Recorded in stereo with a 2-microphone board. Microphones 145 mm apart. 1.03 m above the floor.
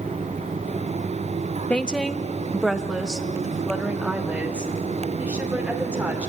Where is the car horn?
I don't hear a car horn.